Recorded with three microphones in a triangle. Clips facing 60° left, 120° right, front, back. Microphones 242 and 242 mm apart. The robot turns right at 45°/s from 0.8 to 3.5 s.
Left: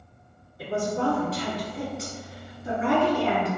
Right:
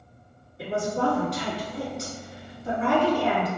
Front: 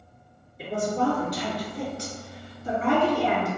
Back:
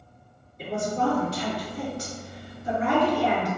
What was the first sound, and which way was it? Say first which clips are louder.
A woman speaking: even, front 1 dB; 80° right.